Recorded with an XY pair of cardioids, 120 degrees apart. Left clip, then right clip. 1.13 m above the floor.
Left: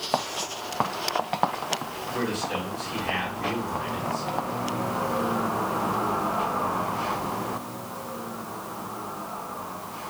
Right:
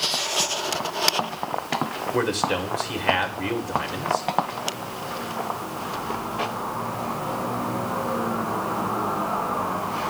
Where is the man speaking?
60° right, 2.5 m.